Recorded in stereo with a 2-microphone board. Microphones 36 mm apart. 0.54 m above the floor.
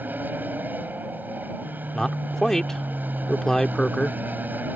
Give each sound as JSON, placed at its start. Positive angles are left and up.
{"t": 0.0, "sound": "an aircraft", "side_deg": -60}
{"t": 1.9, "sound": "a man speaking", "side_deg": 15}